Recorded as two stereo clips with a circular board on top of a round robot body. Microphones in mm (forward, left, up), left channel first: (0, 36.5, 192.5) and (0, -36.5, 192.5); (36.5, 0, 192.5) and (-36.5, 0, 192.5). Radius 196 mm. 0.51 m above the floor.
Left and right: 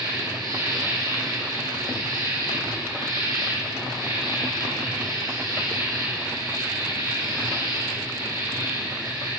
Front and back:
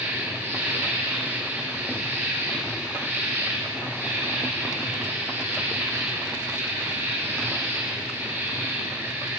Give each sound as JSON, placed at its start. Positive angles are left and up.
{"t": 0.0, "sound": "an insect", "azimuth_deg": -120, "distance_m": 10.0}